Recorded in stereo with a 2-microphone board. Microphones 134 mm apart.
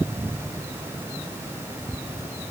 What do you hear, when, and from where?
Only background noise.